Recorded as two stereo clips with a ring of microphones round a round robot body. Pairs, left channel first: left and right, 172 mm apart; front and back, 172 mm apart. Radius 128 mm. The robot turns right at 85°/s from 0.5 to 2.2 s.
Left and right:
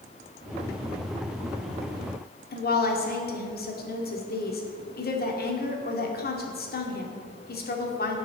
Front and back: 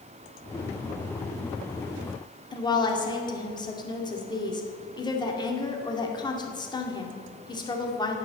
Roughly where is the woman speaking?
Ahead left.